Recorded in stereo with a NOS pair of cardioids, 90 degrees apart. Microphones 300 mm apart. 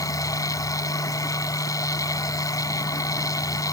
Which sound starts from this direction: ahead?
A machine running, at 0.0 s.